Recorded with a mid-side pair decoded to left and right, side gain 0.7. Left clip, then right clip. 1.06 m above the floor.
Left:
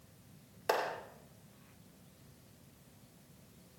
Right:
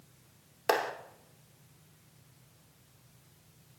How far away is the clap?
About 2.5 m.